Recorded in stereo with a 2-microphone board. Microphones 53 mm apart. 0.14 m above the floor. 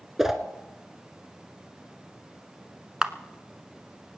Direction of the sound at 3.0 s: 15° right (ahead or behind).